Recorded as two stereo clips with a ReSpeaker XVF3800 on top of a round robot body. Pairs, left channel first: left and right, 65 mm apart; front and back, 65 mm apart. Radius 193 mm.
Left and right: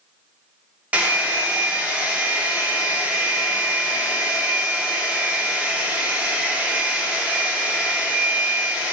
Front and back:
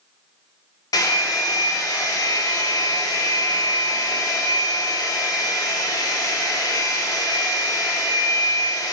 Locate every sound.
0.9 s a hair dryer: 20° right, 0.6 m